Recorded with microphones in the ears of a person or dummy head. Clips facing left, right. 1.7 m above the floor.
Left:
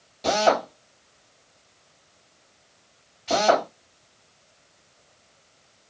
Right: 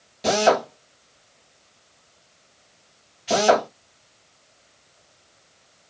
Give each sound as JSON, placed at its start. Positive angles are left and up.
{"t": 0.2, "sound": "a drill", "side_deg": -5, "distance_m": 1.6}